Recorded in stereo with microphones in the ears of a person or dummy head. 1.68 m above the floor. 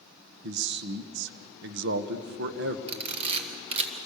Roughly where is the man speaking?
Right.